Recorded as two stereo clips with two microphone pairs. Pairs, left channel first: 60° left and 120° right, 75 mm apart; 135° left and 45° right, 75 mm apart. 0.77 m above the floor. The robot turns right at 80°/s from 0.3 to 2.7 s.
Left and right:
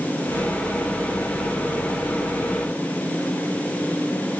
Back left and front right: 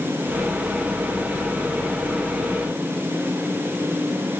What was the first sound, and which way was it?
Only background noise.